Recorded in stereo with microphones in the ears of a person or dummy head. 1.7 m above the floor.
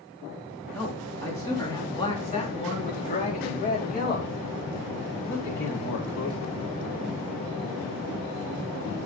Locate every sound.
0.7 s a man speaking: 5° left (ahead or behind), 4 m; by 6.5 s 60° left (ahead or behind), 5.5 m